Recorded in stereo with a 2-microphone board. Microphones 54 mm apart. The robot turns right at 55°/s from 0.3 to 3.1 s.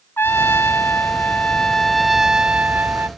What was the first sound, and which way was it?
A trumpet, 85° left.